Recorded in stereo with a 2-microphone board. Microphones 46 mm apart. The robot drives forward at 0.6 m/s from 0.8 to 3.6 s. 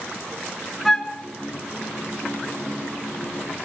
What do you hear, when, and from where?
0.8 s a flute: 5° left (ahead or behind), 0.8 m